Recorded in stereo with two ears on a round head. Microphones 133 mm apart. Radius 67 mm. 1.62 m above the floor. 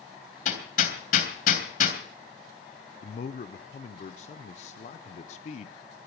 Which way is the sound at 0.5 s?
55° left (ahead or behind).